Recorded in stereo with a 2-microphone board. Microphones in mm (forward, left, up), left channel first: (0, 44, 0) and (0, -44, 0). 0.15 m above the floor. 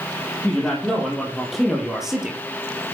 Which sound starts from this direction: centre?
A man speaking, at 0.4 s.